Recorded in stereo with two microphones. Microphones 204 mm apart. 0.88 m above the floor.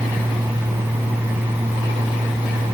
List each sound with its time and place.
Only background noise.